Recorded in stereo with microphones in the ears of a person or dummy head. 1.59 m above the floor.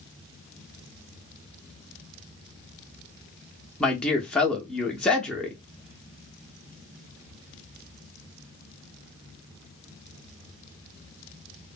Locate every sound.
3.8 s a man speaking: centre (ahead or behind), 0.5 m